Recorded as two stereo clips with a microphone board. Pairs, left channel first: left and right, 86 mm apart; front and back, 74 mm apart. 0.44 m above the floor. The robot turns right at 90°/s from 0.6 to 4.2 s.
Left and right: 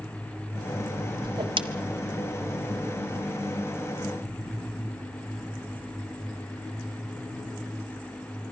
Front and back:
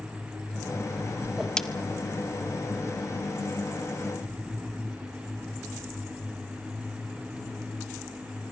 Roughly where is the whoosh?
Right.